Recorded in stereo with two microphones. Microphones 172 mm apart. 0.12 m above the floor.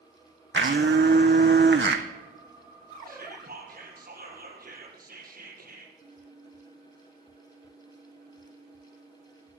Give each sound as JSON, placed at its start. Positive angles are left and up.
{"t": 0.5, "sound": "a blender", "side_deg": -85, "distance_m": 1.1}
{"t": 3.1, "sound": "whispering", "side_deg": -55, "distance_m": 3.0}